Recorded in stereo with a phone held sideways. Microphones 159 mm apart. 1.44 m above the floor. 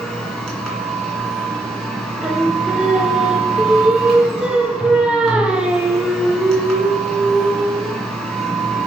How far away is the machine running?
About 2.5 m.